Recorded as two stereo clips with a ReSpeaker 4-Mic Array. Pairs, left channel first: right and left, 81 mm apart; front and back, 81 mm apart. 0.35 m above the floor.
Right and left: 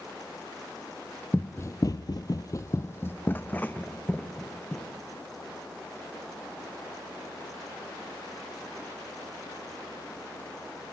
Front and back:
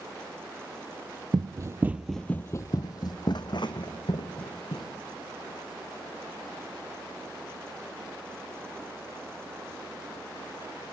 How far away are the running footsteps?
About 0.7 m.